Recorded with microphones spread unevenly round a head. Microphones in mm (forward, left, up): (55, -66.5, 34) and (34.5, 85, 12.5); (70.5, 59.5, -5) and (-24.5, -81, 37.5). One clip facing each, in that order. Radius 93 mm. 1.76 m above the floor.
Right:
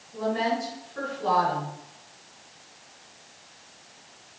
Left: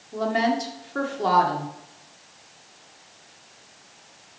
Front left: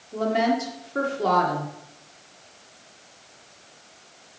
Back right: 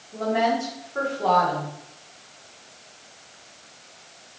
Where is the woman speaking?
100° left, 2.0 m.